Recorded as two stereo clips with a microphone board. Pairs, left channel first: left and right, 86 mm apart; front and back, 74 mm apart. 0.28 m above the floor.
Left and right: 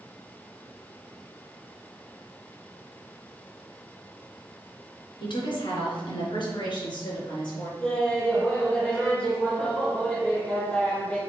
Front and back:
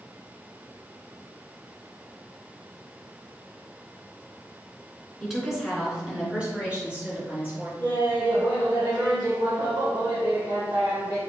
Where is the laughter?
155° left, 2 m.